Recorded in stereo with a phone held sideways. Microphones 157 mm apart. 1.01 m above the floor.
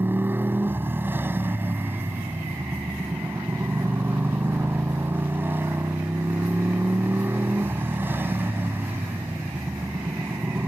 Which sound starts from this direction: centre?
A motorcycle, at 0.0 s.